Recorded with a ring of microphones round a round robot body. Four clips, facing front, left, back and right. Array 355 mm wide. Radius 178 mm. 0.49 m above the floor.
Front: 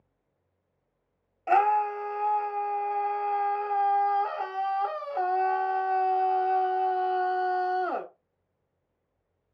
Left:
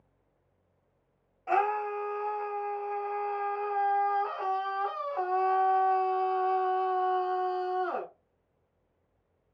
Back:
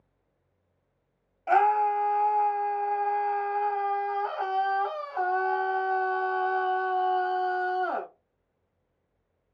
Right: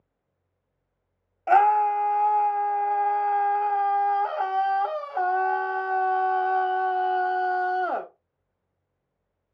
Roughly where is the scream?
Right.